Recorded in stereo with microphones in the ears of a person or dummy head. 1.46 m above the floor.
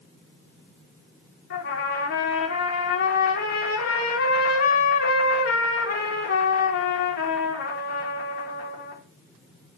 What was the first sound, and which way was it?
A trumpet, 65° left (ahead or behind).